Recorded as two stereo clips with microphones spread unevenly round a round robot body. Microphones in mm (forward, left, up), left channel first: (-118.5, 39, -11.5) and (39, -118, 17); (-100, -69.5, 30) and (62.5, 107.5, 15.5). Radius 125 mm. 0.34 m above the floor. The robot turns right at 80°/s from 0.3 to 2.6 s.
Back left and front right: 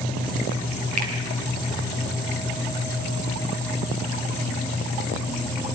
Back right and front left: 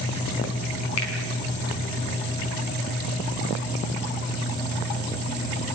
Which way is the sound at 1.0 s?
105° right.